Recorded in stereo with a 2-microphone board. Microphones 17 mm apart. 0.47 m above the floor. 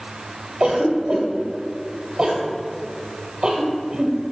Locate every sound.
0.6 s a cough: 65° right (ahead or behind), 1.7 m